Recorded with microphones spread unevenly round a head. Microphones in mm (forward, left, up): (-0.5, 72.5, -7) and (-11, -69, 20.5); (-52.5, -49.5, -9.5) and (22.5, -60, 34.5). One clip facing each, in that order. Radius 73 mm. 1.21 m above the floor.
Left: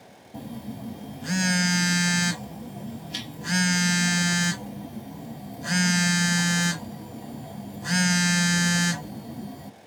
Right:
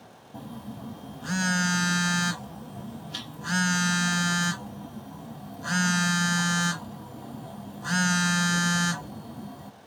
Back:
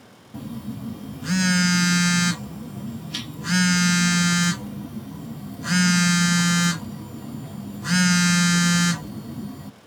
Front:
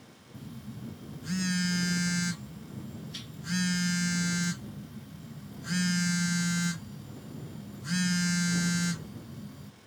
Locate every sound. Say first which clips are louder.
0.3 s a phone buzzing: left 3 dB, back 11 dB; 160° left